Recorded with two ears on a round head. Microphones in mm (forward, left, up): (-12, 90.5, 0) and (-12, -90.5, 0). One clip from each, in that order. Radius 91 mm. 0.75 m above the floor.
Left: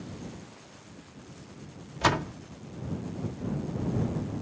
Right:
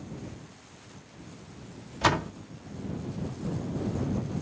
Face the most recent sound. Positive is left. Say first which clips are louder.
# right 1 dB
turn(degrees=-5)  # may be behind; listen again after turning